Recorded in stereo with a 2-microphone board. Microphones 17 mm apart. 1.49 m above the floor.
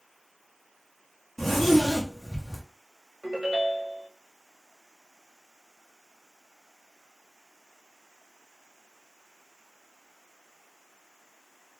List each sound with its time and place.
1.4 s a zipper: 10° left (ahead or behind), 0.8 m
3.2 s a ringtone: 55° right (ahead or behind), 0.9 m